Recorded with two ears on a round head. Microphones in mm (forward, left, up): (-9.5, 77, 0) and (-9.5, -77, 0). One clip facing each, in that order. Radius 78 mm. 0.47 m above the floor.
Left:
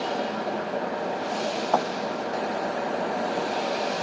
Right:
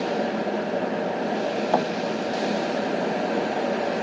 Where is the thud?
15° right (ahead or behind).